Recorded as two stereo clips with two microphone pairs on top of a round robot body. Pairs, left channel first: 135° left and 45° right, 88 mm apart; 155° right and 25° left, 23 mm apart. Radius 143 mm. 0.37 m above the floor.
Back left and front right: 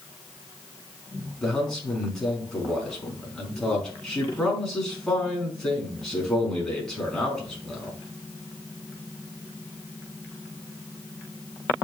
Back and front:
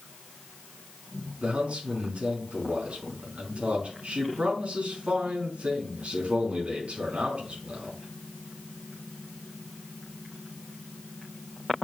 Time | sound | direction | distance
1.4 | a man speaking | 50° left | 4.5 m